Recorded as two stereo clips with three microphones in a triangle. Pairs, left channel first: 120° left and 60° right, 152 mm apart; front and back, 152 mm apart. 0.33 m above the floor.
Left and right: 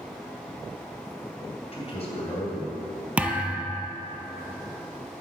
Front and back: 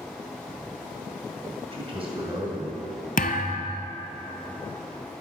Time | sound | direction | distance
1.7 | a man speaking | 145° left | 2 m
3.2 | a thud | 20° left | 0.7 m